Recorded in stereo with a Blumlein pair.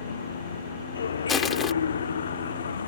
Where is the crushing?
20° left.